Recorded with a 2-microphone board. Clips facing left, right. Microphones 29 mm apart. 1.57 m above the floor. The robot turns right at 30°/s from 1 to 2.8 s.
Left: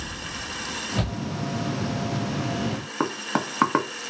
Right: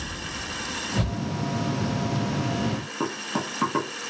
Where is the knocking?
55° left (ahead or behind), 0.7 m.